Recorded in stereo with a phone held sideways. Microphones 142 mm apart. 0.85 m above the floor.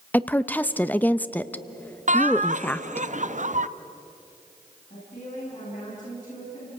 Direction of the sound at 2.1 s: 55° right (ahead or behind).